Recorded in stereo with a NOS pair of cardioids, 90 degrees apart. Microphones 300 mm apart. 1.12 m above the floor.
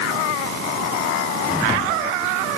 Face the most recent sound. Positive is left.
No sound to turn to.